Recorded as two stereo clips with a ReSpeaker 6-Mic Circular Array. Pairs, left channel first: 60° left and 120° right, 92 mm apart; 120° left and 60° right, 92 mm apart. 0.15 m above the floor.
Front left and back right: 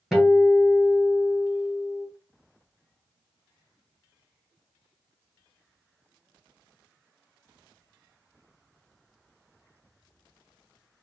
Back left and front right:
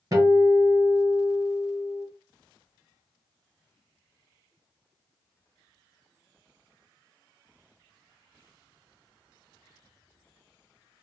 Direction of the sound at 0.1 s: 30° right.